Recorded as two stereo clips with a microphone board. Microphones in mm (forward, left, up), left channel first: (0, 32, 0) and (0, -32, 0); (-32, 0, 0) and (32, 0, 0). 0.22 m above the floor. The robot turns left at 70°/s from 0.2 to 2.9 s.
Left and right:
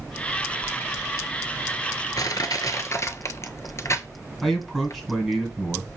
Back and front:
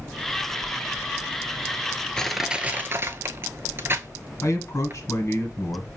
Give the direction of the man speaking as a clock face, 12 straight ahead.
6 o'clock.